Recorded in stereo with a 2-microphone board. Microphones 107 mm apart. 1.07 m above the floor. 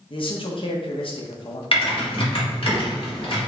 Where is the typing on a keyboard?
55° left (ahead or behind), 1.5 m.